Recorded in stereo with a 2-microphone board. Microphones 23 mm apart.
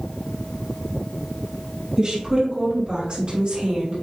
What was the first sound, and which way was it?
A woman speaking, 35° right (ahead or behind).